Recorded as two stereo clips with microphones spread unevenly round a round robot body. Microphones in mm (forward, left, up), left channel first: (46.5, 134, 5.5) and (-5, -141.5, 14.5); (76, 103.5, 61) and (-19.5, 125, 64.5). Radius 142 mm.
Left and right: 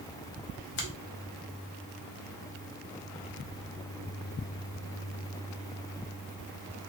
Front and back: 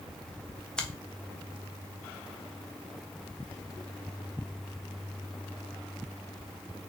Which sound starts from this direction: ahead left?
A finger snap, at 0.8 s.